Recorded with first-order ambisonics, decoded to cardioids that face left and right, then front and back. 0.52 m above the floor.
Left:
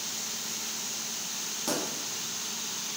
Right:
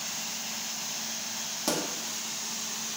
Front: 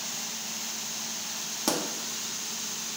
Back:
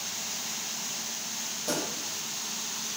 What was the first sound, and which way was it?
A pop, 15° right.